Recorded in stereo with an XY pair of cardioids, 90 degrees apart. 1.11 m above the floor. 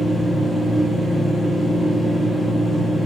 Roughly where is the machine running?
Ahead.